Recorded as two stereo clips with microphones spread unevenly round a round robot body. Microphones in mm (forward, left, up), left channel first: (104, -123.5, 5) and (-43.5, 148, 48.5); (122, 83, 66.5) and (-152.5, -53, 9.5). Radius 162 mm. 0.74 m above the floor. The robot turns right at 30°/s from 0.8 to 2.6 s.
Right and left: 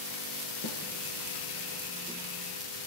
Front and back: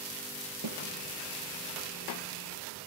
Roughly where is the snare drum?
Right.